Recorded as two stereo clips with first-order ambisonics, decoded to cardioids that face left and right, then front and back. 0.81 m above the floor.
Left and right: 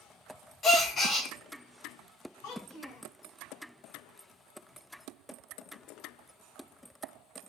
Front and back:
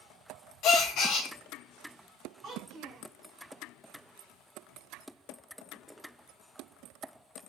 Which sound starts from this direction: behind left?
A child speaking, at 2.4 s.